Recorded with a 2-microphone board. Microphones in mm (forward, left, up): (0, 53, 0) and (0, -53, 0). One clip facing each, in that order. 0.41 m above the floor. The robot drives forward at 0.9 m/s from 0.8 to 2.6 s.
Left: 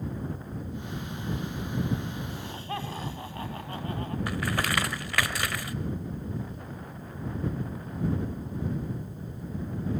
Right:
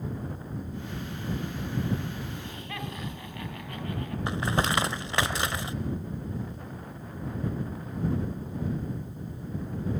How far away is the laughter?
About 3.5 m.